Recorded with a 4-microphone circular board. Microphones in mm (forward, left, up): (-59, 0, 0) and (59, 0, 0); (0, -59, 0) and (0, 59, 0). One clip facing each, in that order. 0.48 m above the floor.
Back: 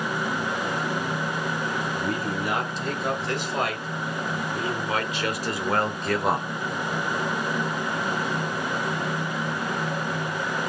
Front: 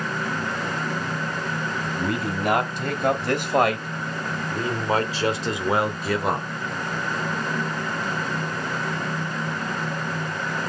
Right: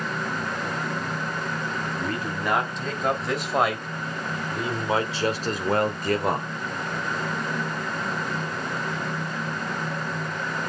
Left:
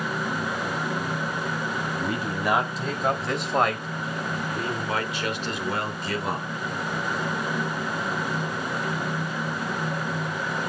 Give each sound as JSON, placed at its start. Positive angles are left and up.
{"t": 1.9, "sound": "a man speaking", "azimuth_deg": 10, "distance_m": 3.0}